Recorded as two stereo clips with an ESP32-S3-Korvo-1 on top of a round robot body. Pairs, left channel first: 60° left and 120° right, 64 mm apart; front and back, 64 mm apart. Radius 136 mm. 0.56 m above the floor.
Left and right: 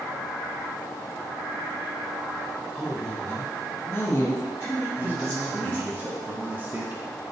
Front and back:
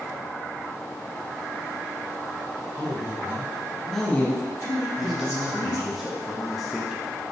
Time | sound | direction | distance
2.8 | a woman speaking | 145° left | 1.7 m
5.0 | a man speaking | 100° right | 0.8 m